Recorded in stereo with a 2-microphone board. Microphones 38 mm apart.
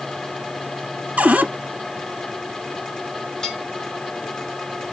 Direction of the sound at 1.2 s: 40° right (ahead or behind).